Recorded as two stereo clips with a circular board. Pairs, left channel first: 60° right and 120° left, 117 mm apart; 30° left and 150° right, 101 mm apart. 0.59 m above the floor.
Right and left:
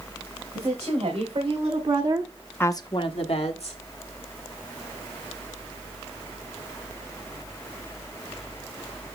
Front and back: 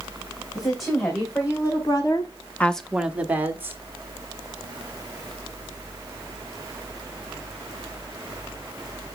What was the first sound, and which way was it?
A woman speaking, 85° left.